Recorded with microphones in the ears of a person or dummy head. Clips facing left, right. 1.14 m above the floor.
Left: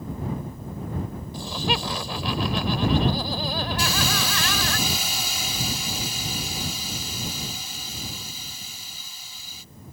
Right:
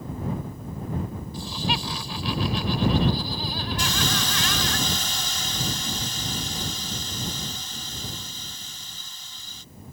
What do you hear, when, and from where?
1.3 s laughter: 50° left (ahead or behind)
3.8 s a hiss: 10° left (ahead or behind)